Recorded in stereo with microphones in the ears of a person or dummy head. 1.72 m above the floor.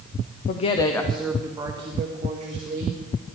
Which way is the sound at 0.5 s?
50° left (ahead or behind).